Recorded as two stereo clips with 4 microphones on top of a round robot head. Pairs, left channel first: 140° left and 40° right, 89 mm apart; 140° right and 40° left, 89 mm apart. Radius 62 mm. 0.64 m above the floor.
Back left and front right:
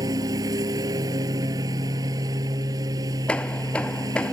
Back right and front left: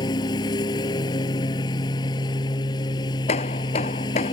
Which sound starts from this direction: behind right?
Hammering, at 3.3 s.